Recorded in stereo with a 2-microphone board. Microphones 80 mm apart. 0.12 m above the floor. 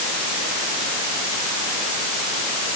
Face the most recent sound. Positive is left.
No sound to turn to.